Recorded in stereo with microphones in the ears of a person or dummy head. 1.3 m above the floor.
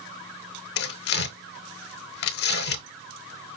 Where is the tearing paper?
55° left (ahead or behind), 0.7 m.